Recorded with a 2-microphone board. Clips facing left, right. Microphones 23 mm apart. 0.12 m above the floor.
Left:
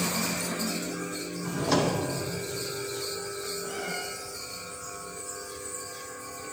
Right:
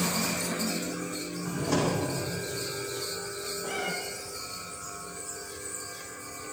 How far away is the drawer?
About 2.5 m.